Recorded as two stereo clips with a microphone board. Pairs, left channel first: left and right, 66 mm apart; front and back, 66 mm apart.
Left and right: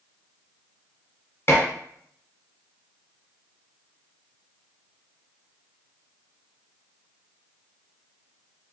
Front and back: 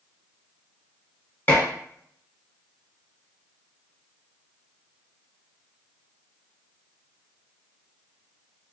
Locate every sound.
1.5 s dishes clattering: 50° left, 1.2 m